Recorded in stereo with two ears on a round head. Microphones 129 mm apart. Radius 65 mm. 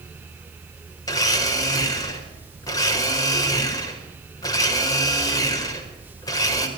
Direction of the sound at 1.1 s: 25° left (ahead or behind).